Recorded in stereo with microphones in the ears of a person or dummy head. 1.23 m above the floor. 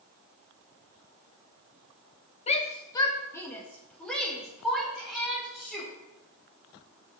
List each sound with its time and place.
2.5 s a shout: 40° left (ahead or behind), 1.2 m; by 5.9 s centre (ahead or behind), 4 m